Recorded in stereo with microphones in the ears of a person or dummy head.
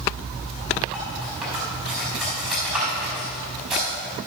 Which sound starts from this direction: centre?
Cutlery clinking, at 0.9 s.